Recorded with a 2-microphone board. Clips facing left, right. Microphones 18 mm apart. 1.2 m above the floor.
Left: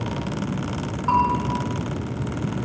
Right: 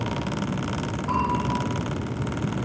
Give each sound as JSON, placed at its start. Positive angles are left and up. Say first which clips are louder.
{"t": 1.1, "sound": "a bell", "louder": "left 6 dB", "side_deg": 75, "distance_m": 3.0}